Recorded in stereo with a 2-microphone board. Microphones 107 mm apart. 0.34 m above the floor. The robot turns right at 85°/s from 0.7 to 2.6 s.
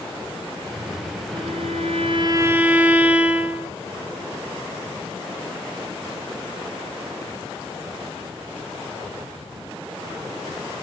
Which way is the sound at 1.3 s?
120° right.